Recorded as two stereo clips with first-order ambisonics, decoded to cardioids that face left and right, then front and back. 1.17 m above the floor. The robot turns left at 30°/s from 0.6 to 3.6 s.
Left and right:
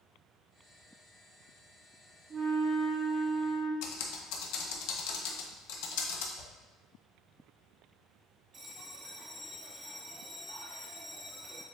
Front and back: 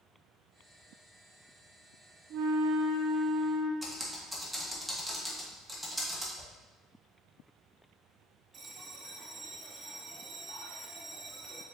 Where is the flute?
150° right, 0.6 m; by 3.7 s 170° left, 0.6 m.